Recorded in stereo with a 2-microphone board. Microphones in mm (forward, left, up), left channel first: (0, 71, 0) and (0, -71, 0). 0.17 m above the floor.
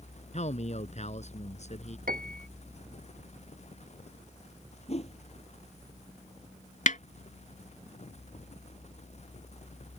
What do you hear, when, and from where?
0.3 s a man speaking: 55° left (ahead or behind)
2.1 s a piano: 80° right
4.9 s a whoosh: 50° left (ahead or behind)
6.9 s a snare drum: 65° left (ahead or behind)